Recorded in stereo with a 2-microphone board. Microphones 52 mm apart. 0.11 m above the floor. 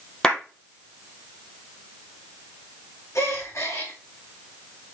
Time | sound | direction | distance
0.2 | a clap | 10° left (ahead or behind) | 3 m
3.1 | a gasp | 65° left (ahead or behind) | 3 m